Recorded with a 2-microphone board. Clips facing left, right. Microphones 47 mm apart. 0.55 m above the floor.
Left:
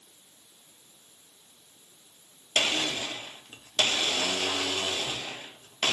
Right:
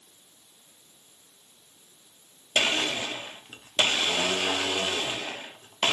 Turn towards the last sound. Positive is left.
turn(degrees=-25)  # may be behind; listen again after turning